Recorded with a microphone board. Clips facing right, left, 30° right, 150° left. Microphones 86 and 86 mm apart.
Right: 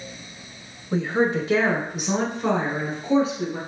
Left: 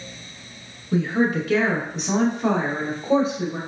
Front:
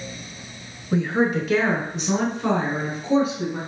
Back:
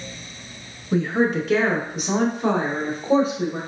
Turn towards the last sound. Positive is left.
turn(degrees=120)